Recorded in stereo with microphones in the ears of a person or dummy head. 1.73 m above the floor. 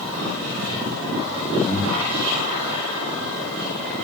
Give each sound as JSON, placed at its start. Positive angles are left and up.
{"t": 1.6, "sound": "breathing", "side_deg": 5, "distance_m": 2.5}